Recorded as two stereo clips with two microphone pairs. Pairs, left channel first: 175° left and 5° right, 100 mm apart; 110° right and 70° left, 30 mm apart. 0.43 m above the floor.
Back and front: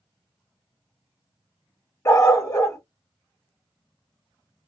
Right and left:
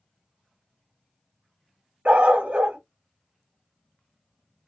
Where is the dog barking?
115° left, 0.8 m.